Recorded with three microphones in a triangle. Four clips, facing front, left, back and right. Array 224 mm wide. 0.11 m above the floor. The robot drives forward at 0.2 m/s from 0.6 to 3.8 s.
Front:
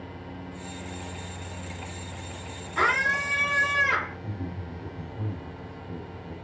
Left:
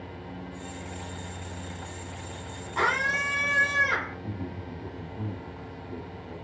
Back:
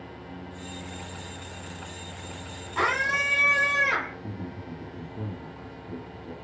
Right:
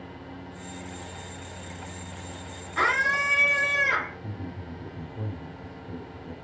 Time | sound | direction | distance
2.8 | a scream | 115° left | 1.5 m
4.2 | a man speaking | 135° right | 1.7 m